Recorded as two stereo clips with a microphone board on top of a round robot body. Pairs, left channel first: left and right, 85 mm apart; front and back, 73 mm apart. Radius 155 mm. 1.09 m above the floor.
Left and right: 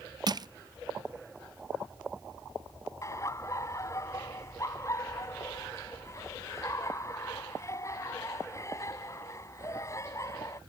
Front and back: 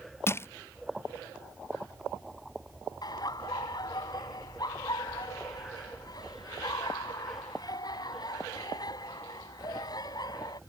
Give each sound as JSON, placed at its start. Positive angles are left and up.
{"t": 0.3, "sound": "crushing", "azimuth_deg": -55}
{"t": 3.0, "sound": "laughter", "azimuth_deg": 35}